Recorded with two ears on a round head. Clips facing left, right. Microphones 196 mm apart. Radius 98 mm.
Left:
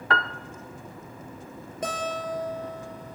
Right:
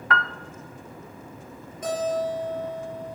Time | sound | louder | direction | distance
0.1 | a piano | even | 25° left (ahead or behind) | 0.7 m
1.8 | a guitar | right 6 dB | 55° left (ahead or behind) | 6.5 m